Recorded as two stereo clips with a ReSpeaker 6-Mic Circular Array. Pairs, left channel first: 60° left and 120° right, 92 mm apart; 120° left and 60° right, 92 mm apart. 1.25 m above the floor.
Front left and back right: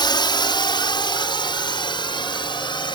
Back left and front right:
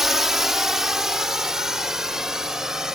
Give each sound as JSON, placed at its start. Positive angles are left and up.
{"t": 0.0, "sound": "a drone", "azimuth_deg": 25}